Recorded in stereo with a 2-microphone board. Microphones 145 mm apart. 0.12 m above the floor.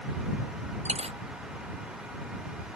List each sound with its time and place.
0.8 s a dropped coin: 45° right (ahead or behind)